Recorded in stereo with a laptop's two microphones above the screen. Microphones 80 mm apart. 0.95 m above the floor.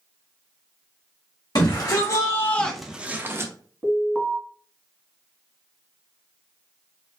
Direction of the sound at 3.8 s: 5° left (ahead or behind).